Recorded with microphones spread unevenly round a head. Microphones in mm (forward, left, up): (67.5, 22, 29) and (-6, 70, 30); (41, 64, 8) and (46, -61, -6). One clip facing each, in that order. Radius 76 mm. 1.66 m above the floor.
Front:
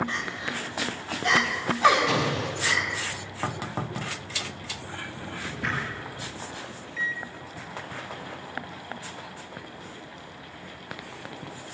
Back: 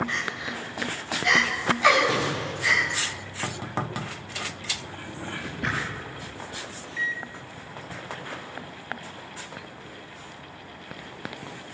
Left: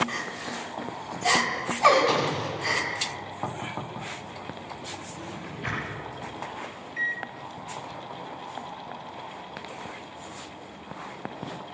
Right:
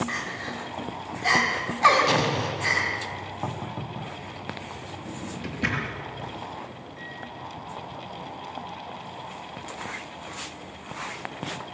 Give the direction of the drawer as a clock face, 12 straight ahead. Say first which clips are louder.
Back 4 dB, right 3 dB; 4 o'clock.